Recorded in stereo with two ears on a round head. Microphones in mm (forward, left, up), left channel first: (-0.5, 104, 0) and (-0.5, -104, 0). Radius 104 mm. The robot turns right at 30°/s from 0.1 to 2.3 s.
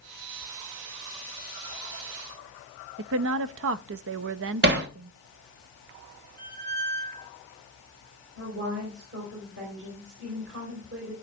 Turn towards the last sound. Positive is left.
turn(degrees=-55)  # may be behind; listen again after turning